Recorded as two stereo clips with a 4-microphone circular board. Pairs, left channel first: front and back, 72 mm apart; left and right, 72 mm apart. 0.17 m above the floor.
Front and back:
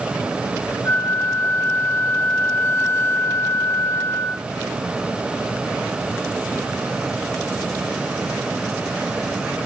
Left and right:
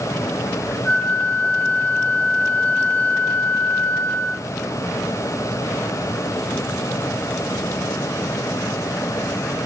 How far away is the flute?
About 0.6 m.